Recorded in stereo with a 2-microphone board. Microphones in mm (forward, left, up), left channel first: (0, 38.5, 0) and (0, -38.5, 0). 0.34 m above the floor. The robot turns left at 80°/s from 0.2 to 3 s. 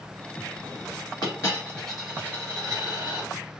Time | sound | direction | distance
1.2 | a dropped coin | 60° left | 1.9 m